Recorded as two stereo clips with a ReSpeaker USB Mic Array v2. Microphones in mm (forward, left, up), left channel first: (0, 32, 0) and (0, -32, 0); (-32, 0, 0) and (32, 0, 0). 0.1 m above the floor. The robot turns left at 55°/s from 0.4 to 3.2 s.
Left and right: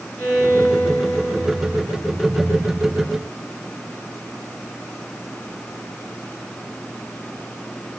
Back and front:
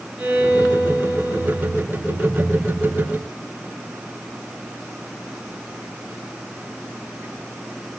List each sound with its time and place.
0.2 s a violin: 45° left, 1.8 m; by 1.9 s 35° right, 1.8 m